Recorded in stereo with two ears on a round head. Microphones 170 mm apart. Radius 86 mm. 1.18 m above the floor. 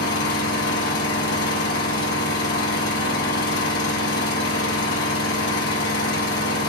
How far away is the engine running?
About 1.1 m.